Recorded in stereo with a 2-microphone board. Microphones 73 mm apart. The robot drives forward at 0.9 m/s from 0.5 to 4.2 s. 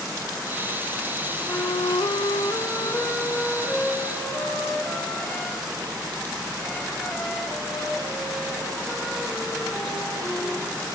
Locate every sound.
1.5 s a flute: 40° left (ahead or behind), 0.7 m; by 10.7 s 15° left (ahead or behind), 2 m